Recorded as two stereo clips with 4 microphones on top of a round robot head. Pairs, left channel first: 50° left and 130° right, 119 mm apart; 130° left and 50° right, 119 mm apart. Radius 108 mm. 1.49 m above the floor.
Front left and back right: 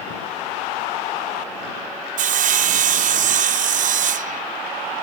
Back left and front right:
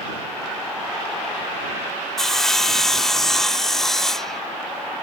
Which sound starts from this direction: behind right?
Sawing, at 2.2 s.